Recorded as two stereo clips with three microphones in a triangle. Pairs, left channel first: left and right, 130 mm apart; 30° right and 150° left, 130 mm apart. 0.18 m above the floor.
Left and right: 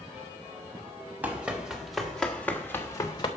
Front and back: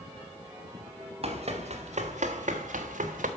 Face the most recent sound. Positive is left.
turn(degrees=145)